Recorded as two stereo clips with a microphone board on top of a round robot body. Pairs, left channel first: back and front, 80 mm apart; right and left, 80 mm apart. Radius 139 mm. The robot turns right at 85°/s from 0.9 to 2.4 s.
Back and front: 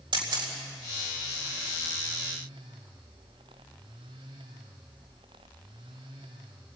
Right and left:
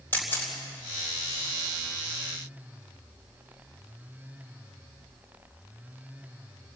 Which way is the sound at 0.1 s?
20° right.